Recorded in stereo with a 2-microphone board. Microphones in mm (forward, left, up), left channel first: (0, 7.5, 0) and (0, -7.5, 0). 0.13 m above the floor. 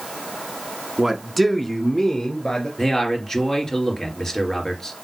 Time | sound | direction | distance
1.0 | a man speaking | 25° right (ahead or behind) | 1.4 m
2.8 | a man speaking | 35° left (ahead or behind) | 3 m